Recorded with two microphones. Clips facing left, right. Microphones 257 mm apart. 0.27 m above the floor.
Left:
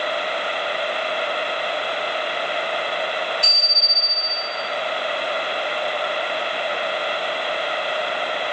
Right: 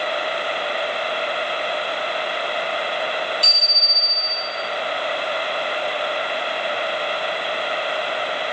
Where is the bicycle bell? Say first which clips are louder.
Even; 40° right (ahead or behind), 7 m.